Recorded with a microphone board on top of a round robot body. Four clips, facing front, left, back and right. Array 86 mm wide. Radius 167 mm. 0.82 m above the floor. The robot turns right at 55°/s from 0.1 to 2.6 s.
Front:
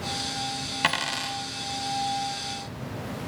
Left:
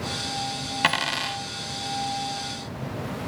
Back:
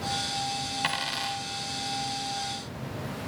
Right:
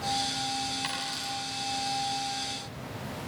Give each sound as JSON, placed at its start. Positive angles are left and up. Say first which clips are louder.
{"t": 0.8, "sound": "a dropped coin", "louder": "left 10 dB, front 6 dB", "azimuth_deg": 60, "distance_m": 1.5}